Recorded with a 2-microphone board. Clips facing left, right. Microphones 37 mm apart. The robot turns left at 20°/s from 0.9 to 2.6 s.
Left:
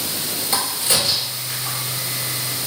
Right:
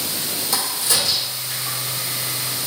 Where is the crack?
45° left (ahead or behind), 2 m; by 1.8 s 50° left (ahead or behind), 2 m.